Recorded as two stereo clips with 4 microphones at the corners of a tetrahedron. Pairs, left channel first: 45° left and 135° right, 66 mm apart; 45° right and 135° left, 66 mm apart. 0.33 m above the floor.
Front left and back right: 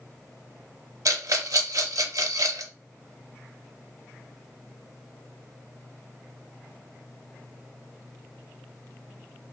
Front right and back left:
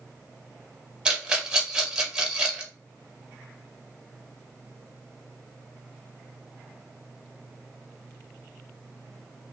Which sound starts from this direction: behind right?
A rattle, at 1.1 s.